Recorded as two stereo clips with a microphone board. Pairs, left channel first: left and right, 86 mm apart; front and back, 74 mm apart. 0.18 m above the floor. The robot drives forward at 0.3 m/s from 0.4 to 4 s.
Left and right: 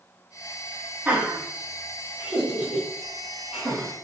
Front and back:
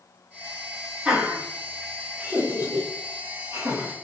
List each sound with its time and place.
1.1 s laughter: 130° right, 1.6 m; by 3.9 s 160° right, 1.9 m